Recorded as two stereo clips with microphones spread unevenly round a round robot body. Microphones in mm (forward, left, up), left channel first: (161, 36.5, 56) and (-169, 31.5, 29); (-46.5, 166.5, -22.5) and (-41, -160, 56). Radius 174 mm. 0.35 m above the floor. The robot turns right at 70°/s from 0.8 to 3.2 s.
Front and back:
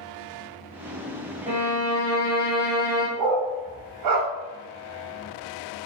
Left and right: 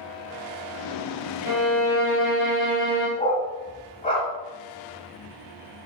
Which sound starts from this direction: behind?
A dog barking, at 3.2 s.